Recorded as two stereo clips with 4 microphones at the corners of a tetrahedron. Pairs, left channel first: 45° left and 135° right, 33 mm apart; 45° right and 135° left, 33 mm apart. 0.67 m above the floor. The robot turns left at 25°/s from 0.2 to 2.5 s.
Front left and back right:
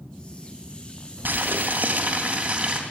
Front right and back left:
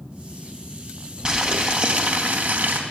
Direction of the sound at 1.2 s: 160° right.